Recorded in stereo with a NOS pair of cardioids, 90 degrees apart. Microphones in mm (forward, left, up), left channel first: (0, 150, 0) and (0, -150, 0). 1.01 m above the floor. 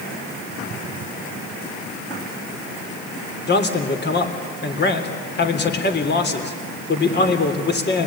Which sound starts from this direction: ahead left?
A man speaking, at 3.5 s.